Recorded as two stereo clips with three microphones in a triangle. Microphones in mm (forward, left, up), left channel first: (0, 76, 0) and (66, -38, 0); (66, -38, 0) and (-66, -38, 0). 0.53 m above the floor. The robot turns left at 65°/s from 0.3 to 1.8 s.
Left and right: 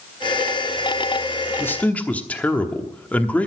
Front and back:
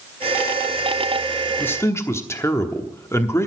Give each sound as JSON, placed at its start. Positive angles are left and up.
{"t": 1.6, "sound": "a man speaking", "azimuth_deg": 65, "distance_m": 1.0}